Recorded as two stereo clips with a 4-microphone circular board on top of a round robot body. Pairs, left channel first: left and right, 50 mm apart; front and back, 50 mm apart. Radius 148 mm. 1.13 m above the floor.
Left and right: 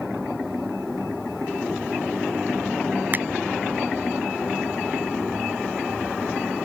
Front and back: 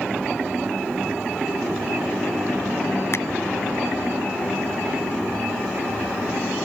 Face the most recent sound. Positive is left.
turn(degrees=-35)